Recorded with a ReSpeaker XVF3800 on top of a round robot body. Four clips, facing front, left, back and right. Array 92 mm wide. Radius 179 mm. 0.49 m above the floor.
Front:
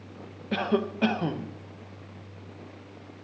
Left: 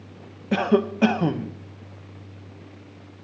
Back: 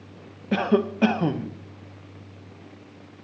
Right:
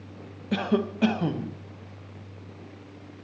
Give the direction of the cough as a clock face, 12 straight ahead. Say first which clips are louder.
Left 5 dB, back 5 dB; 8 o'clock.